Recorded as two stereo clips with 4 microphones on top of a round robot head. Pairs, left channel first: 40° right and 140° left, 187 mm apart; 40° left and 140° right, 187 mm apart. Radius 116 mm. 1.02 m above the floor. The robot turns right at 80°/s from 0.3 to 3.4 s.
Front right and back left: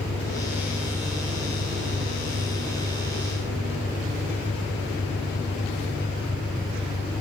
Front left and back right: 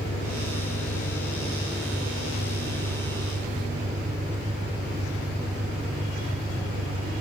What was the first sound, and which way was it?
An engine running, 10° left.